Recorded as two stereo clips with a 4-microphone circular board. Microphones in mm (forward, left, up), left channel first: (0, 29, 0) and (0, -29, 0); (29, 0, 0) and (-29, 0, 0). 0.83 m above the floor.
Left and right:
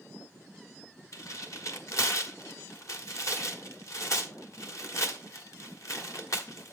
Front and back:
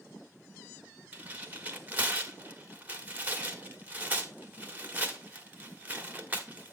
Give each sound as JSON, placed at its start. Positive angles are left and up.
{"t": 1.1, "sound": "tearing paper", "azimuth_deg": 120, "distance_m": 1.4}